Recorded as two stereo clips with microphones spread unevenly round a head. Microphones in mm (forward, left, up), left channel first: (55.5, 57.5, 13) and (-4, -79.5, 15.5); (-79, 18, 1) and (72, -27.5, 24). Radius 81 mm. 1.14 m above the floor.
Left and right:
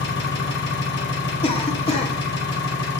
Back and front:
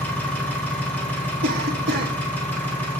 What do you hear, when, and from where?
0.0 s an engine running: 85° left, 1.8 m
1.4 s a cough: 15° left, 2.0 m